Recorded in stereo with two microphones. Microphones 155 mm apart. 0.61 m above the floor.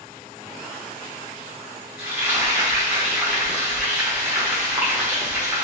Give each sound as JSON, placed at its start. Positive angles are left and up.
{"t": 2.0, "sound": "frying", "side_deg": -15, "distance_m": 1.1}